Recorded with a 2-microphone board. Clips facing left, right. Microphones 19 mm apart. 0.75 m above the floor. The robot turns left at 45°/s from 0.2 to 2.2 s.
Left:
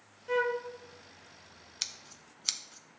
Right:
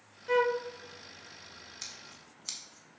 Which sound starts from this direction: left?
Scissors, at 1.8 s.